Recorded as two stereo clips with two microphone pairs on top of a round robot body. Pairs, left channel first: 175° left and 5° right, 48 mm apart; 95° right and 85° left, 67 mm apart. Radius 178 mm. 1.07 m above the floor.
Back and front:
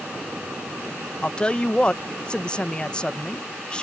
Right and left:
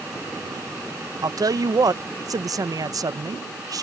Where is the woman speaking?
105° left.